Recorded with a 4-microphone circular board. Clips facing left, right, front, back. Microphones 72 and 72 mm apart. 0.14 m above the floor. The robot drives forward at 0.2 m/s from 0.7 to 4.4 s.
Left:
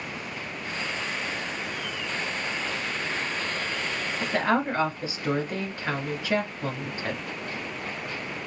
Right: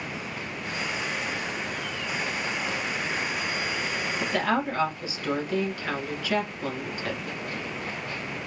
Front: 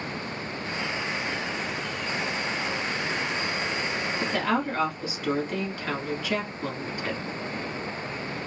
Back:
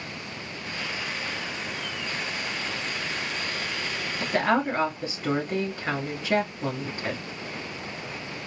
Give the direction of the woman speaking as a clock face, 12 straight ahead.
7 o'clock.